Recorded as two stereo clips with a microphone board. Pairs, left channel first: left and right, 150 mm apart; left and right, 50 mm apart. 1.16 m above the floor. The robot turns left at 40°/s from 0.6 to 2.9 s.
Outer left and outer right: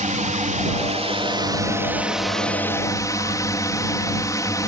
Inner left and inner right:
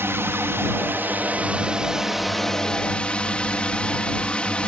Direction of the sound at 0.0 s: 115° right.